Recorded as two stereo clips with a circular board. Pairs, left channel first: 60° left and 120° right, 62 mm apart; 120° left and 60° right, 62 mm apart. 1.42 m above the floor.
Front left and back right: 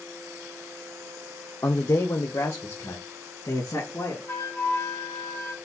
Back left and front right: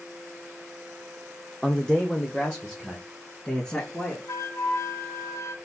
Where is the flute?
105° left, 0.9 m.